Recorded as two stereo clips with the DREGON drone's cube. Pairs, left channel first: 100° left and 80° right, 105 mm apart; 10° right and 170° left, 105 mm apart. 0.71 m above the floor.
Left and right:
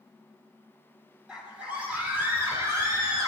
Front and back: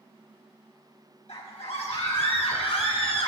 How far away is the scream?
About 3.5 m.